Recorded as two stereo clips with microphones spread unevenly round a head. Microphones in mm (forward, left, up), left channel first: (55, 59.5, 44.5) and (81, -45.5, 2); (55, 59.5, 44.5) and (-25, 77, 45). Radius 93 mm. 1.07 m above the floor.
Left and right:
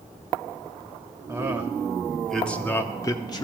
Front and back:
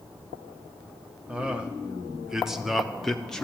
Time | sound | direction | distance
1.3 | a man speaking | 120° right | 1.1 m